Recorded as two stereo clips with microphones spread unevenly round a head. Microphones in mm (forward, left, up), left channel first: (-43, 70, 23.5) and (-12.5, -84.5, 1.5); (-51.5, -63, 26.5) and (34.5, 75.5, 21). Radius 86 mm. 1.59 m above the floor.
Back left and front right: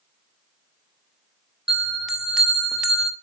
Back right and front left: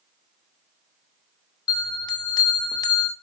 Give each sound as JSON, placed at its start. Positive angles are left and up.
{"t": 1.7, "sound": "a bell", "azimuth_deg": -175, "distance_m": 1.3}